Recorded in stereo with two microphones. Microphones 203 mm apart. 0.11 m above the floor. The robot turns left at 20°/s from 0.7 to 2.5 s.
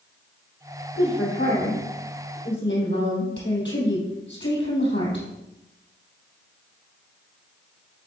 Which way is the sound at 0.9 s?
105° left.